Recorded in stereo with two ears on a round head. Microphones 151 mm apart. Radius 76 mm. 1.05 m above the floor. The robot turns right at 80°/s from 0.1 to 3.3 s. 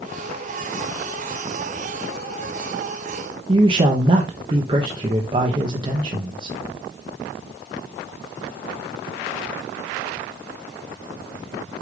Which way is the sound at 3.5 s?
30° right (ahead or behind).